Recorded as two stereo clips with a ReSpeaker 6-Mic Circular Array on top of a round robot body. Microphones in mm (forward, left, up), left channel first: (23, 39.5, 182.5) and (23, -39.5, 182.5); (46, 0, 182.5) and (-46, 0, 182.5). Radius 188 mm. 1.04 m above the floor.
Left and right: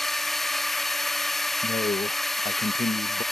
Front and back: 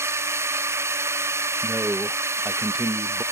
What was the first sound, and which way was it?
A drone, 170° left.